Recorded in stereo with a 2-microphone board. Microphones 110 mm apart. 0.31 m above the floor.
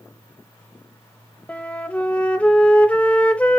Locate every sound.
1.5 s a flute: 15° left (ahead or behind), 0.6 m